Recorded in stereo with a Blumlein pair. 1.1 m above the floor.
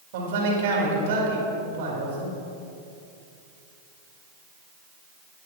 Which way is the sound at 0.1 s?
55° right.